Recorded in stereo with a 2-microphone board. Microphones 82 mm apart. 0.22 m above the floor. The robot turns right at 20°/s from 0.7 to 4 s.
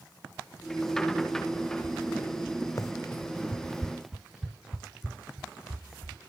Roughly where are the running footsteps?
Left.